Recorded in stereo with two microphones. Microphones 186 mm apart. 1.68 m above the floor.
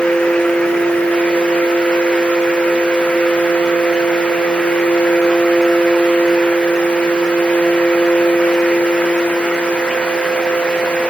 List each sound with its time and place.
Only background noise.